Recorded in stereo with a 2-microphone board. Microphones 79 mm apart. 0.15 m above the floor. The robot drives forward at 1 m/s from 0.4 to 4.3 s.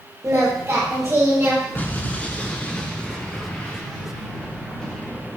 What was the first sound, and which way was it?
Singing, 45° right (ahead or behind).